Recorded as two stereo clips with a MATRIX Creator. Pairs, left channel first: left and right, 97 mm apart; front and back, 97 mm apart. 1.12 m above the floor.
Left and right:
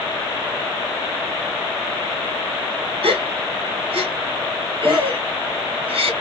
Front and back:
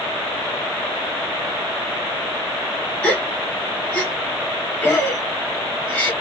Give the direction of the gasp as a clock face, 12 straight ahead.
3 o'clock.